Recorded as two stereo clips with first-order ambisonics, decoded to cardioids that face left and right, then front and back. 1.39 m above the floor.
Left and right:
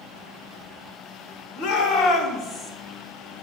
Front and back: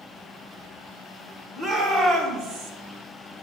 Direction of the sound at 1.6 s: 115° left.